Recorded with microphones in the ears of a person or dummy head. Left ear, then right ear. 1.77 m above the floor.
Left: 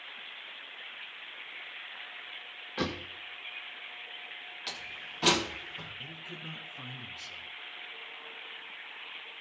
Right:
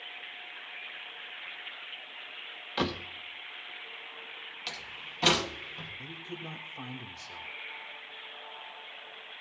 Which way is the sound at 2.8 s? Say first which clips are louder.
Right 3 dB; 10° right (ahead or behind).